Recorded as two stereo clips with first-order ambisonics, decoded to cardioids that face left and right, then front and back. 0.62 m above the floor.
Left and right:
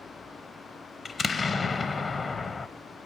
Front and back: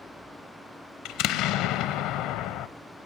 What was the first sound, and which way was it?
An explosion, 15° left.